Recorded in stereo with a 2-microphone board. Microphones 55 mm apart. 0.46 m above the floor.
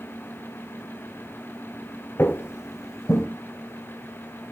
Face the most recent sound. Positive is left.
turn(degrees=70)  # may be behind; listen again after turning